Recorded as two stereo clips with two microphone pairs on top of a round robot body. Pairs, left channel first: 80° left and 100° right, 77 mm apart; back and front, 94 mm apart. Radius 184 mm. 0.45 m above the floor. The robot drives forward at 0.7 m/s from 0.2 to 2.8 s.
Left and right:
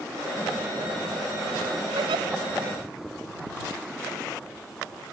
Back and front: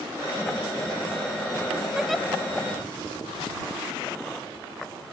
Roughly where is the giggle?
Right.